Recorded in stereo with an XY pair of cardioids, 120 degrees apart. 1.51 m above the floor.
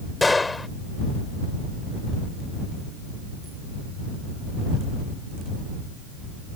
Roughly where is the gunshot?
Ahead.